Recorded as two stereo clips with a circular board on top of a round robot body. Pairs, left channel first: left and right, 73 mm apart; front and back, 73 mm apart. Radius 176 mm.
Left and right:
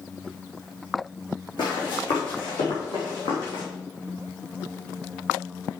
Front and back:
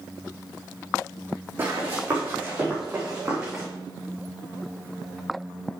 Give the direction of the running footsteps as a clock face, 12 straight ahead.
8 o'clock.